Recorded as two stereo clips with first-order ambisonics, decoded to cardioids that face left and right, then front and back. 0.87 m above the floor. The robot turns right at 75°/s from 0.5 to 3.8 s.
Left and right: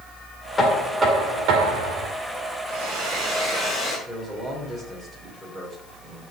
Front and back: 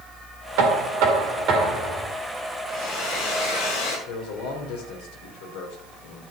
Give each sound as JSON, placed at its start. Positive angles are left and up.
{"t": 0.6, "sound": "knocking", "azimuth_deg": 165, "distance_m": 2.5}
{"t": 2.7, "sound": "a hair dryer", "azimuth_deg": -60, "distance_m": 5.5}
{"t": 4.1, "sound": "a man speaking", "azimuth_deg": 5, "distance_m": 3.0}